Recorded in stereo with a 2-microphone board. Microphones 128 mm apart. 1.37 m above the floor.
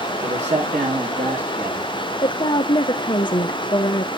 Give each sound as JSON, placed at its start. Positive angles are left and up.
{"t": 0.2, "sound": "a man speaking", "side_deg": -65, "distance_m": 1.2}
{"t": 2.2, "sound": "a woman speaking", "side_deg": 40, "distance_m": 0.6}